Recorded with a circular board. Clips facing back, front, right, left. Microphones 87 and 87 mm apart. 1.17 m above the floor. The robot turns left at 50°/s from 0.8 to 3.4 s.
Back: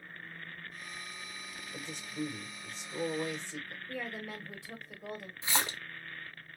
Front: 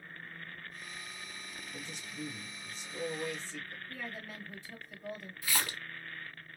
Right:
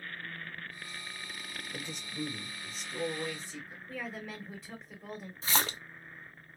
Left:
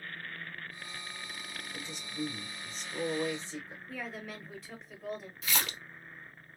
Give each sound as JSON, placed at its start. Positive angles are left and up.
{"t": 1.7, "sound": "a man speaking", "azimuth_deg": -125, "distance_m": 1.3}
{"t": 3.9, "sound": "a woman speaking", "azimuth_deg": 180, "distance_m": 1.5}
{"t": 5.4, "sound": "a splash", "azimuth_deg": -125, "distance_m": 0.5}